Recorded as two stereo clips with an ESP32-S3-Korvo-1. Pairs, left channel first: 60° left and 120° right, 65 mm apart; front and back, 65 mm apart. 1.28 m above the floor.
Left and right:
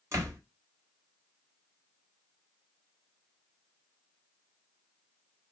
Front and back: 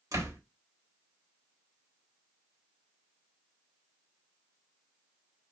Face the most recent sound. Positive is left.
turn(degrees=-160)